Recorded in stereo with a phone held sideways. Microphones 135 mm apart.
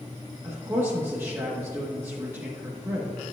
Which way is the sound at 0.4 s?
20° right (ahead or behind).